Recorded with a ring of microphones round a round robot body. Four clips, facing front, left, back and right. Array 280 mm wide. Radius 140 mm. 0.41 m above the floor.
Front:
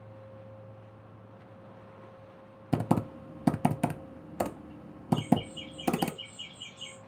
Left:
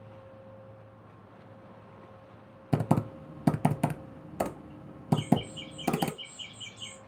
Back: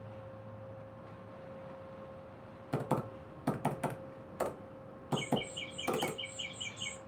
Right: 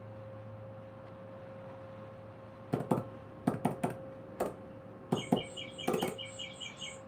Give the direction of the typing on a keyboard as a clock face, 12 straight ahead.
11 o'clock.